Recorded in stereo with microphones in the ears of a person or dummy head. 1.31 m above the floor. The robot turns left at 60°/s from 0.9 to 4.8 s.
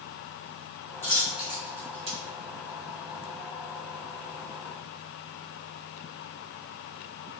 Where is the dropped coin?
10° left (ahead or behind), 0.8 m; by 2.2 s 40° right (ahead or behind), 0.8 m.